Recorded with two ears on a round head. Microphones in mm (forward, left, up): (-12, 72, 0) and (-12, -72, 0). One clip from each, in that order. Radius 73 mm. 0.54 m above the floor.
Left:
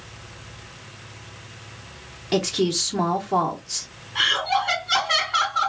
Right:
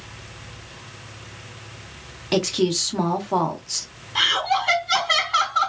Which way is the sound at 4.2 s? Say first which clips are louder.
Right 1 dB; 45° right (ahead or behind).